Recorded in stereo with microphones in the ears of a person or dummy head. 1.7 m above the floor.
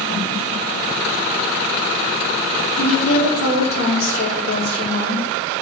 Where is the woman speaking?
85° left, 4.5 m.